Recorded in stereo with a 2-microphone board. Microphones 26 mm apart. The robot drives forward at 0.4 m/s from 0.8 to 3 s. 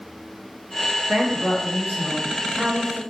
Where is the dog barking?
No dog barking in this recording.